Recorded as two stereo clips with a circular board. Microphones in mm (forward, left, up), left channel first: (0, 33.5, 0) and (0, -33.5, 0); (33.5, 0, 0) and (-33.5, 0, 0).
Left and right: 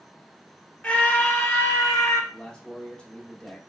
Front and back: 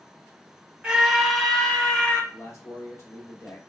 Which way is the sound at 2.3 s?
20° left.